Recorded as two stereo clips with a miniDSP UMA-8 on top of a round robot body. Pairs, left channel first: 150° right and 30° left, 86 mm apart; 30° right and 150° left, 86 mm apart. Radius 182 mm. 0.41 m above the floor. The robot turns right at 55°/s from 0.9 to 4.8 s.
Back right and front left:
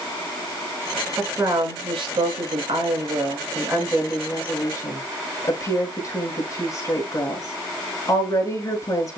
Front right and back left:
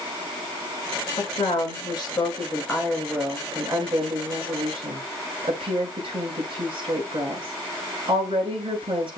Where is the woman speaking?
40° right, 6 m; by 9.2 s 160° left, 6 m.